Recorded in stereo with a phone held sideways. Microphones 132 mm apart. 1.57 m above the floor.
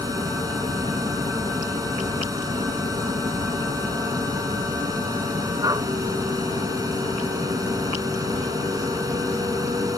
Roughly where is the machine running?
Right.